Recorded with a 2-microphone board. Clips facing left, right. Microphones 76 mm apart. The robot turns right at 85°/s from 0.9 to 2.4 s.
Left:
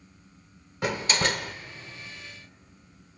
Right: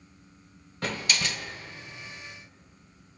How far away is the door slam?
About 1.0 m.